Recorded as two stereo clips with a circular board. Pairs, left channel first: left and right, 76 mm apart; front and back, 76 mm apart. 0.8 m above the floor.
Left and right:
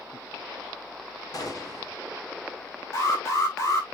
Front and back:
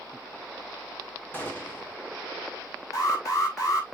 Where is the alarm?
45° left, 5 m.